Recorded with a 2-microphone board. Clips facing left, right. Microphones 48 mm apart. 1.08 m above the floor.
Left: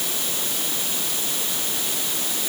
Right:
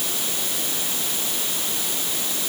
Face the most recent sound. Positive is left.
No sound to turn to.